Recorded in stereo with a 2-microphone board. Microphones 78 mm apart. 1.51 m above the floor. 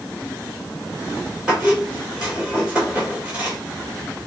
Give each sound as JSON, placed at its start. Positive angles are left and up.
{"t": 1.5, "sound": "a squeak", "side_deg": -10, "distance_m": 3.0}